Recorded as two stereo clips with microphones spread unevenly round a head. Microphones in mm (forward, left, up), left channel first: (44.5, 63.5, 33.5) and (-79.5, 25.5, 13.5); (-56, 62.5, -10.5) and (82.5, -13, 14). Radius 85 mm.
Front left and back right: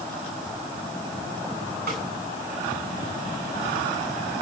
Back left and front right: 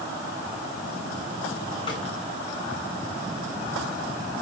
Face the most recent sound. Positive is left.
turn(degrees=-145)